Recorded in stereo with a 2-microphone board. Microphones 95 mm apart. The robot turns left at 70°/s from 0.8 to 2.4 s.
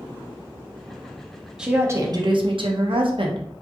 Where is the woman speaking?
5° right, 0.8 m; by 3.4 s 65° right, 0.8 m.